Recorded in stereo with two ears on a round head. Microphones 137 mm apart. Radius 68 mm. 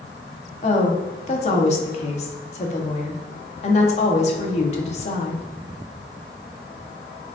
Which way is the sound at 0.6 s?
45° left (ahead or behind).